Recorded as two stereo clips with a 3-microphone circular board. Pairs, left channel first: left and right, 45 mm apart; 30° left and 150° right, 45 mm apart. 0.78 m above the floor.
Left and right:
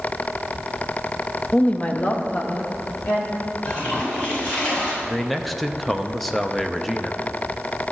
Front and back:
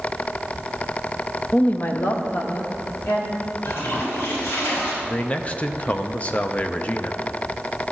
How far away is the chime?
I don't hear a chime.